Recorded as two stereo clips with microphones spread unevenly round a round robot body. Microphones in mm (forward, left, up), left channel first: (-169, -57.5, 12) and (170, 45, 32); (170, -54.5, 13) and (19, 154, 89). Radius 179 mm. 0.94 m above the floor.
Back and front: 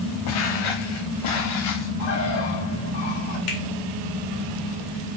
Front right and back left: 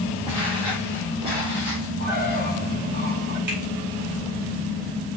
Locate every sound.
0.3 s footsteps: 160° right, 3.5 m
2.0 s a bird: 175° right, 7 m
3.5 s a finger snap: 170° left, 4 m